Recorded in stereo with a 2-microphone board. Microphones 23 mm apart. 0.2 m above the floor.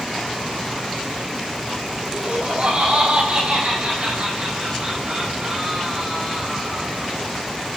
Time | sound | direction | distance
2.1 | laughter | 60° right (ahead or behind) | 8.5 m